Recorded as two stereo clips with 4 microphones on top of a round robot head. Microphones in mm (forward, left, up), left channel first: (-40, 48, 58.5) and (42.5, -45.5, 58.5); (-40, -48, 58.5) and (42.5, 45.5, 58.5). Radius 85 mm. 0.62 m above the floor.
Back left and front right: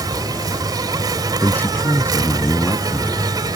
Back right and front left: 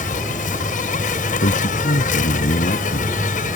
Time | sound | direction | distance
0.0 | an insect | 110° right | ?
1.4 | a man speaking | 155° right | ?